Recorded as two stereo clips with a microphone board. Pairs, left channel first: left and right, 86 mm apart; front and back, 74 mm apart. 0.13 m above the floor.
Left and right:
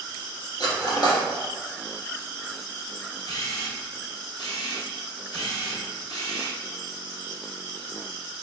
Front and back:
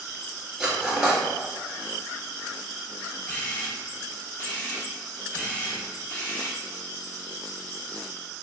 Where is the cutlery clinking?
100° left, 1.3 m.